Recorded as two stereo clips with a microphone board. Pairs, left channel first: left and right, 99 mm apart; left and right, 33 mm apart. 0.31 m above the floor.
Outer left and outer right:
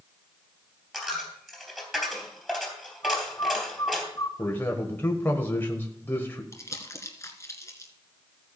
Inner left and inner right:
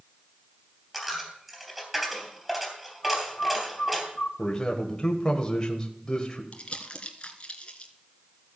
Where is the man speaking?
20° left (ahead or behind), 1.3 m.